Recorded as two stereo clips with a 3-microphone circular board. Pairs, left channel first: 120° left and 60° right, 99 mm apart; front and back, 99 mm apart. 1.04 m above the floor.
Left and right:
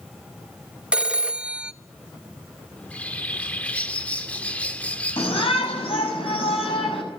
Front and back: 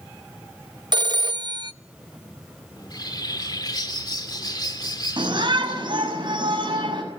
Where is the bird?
45° left, 1.7 m.